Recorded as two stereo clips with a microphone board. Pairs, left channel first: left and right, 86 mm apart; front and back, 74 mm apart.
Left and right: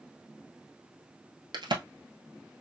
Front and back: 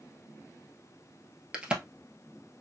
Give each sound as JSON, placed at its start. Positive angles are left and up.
{"t": 1.5, "sound": "a crack", "azimuth_deg": -105, "distance_m": 1.1}